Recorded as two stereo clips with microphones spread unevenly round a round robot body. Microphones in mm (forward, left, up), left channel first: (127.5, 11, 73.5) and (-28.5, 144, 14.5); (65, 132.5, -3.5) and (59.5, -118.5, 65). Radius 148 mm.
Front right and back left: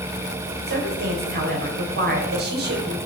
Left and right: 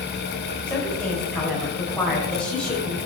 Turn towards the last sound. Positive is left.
turn(degrees=170)